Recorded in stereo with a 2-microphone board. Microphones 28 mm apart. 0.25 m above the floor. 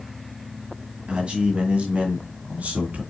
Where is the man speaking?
35° right (ahead or behind), 1.7 m; by 3.0 s 60° right (ahead or behind), 2.5 m.